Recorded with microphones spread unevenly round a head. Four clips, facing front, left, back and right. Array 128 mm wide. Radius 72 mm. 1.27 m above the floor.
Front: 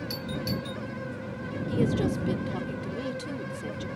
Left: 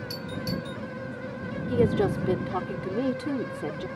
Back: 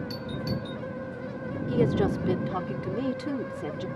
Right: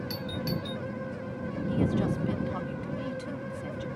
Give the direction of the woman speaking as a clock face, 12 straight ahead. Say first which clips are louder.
Left 5 dB, back 2 dB; 8 o'clock.